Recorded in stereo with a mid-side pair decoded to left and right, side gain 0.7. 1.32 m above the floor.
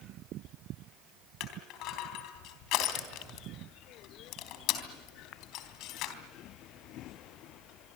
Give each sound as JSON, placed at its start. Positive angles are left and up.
{"t": 1.4, "sound": "crushing", "azimuth_deg": 60, "distance_m": 3.5}